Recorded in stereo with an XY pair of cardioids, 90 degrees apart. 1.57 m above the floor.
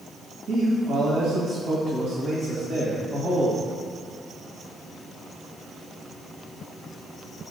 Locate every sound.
0.5 s a man speaking: 70° right, 2.0 m